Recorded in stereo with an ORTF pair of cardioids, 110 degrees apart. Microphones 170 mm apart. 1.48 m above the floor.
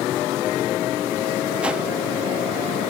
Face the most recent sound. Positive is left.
turn(degrees=-5)